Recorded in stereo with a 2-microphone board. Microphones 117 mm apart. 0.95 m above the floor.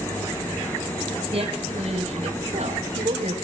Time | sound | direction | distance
1.3 | a woman speaking | 60° right (ahead or behind) | 5 m